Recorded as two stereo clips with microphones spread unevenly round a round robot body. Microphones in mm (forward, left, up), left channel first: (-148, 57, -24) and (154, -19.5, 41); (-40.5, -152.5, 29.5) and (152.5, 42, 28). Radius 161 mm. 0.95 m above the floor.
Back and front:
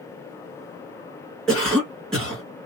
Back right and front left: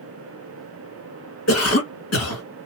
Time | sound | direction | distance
1.5 | a cough | 115° right | 1.6 m